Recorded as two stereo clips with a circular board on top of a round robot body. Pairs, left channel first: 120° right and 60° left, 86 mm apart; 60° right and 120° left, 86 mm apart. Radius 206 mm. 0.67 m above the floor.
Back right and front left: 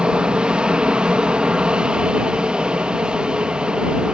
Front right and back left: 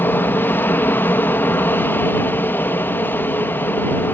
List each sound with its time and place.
0.0 s an aircraft: 10° right